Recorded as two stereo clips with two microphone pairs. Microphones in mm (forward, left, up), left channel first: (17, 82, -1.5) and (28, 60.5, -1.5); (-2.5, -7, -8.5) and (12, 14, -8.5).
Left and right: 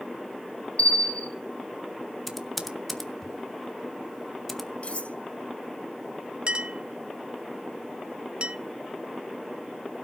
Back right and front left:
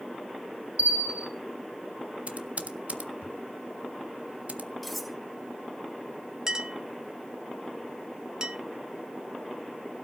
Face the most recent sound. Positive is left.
turn(degrees=-10)